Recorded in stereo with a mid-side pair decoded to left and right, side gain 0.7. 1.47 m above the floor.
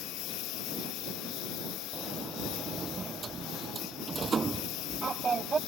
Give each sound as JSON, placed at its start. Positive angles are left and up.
{"t": 0.0, "sound": "a lawn mower", "azimuth_deg": 60}
{"t": 1.9, "sound": "a sliding door", "azimuth_deg": -25}